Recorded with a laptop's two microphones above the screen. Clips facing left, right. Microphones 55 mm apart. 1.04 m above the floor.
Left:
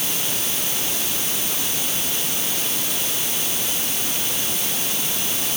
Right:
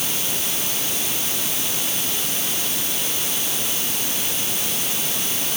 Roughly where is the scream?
I don't hear a scream.